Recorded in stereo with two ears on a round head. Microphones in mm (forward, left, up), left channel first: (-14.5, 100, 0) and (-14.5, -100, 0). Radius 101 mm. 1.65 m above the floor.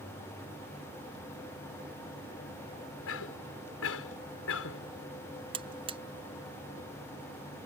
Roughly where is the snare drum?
I don't hear a snare drum.